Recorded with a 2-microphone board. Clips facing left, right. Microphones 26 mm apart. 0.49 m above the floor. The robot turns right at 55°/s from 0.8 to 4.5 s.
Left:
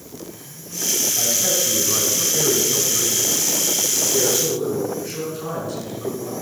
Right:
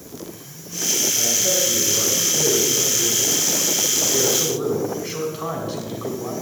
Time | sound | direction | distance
1.2 | a man speaking | 35° left | 4 m